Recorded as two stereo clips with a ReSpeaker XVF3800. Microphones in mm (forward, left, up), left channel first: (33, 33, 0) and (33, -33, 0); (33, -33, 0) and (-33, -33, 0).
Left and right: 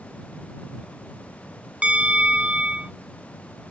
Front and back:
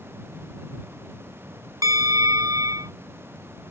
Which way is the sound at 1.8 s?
160° right.